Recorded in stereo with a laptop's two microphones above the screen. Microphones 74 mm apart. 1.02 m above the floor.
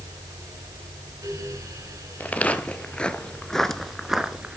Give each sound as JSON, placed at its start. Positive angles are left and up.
{"t": 0.0, "sound": "a fan", "side_deg": -55, "distance_m": 6.0}
{"t": 2.2, "sound": "footsteps", "side_deg": 20, "distance_m": 1.5}